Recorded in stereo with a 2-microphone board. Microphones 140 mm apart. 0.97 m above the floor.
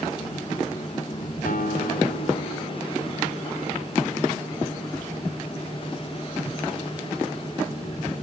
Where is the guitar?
80° left, 4 m.